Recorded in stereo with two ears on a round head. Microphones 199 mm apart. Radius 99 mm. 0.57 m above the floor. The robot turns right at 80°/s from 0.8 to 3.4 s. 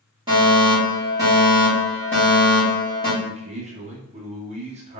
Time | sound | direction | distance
0.3 | a fire alarm | 20° right (ahead or behind) | 1.6 m
3.2 | a man speaking | 20° right (ahead or behind) | 0.8 m